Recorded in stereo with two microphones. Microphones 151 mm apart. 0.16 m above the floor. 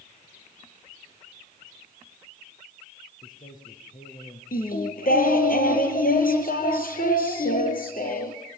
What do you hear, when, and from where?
3.2 s a man speaking: 65° left (ahead or behind), 5 m; by 4.4 s 55° left (ahead or behind), 4 m
4.5 s singing: 70° left (ahead or behind), 3.5 m